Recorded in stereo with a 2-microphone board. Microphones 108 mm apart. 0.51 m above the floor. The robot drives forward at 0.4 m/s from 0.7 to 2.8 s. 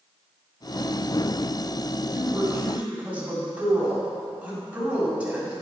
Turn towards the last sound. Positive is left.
turn(degrees=-15)  # may be behind; listen again after turning